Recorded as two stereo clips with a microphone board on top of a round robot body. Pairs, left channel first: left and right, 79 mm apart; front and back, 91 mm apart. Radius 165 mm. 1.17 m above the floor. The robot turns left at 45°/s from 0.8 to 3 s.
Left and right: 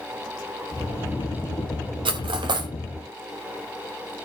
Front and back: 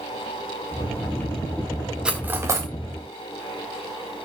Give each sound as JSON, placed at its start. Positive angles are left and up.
{"t": 2.0, "sound": "cutlery clinking", "azimuth_deg": -100, "distance_m": 0.8}